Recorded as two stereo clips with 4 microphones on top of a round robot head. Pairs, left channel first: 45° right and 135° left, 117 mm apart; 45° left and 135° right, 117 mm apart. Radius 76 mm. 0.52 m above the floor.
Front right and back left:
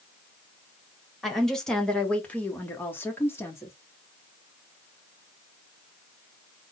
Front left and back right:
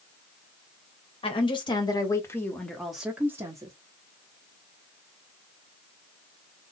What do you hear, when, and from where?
1.2 s a woman speaking: 40° left, 1.7 m; by 3.7 s 100° right, 1.4 m